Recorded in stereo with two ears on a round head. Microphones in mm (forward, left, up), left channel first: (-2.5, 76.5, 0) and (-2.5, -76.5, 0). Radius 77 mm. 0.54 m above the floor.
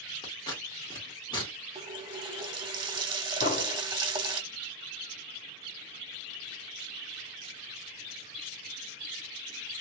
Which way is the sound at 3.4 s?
45° left (ahead or behind).